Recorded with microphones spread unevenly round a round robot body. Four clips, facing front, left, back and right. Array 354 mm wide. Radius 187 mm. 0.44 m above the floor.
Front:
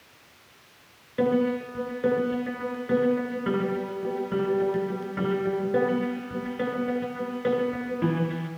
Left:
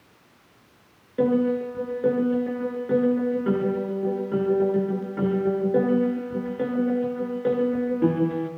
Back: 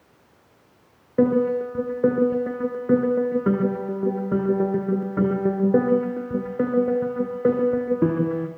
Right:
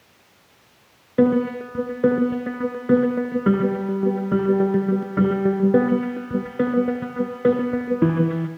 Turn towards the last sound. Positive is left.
turn(degrees=-110)